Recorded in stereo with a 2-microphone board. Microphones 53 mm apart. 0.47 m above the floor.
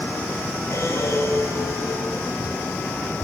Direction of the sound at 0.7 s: 55° left (ahead or behind).